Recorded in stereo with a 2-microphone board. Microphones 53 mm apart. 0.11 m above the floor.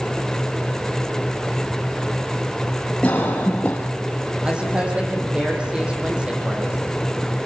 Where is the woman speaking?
20° right (ahead or behind), 5.5 m.